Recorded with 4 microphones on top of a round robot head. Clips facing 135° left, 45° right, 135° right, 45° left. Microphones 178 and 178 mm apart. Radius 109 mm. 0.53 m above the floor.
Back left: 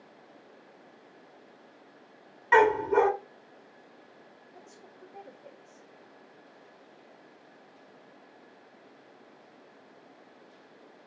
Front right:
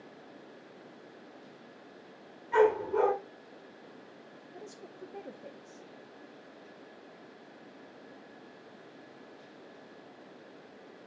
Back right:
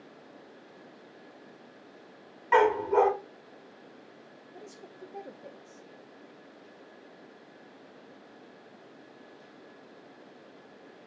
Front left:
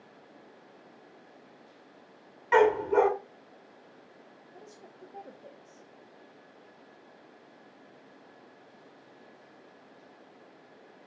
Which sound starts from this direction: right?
A woman speaking, at 4.5 s.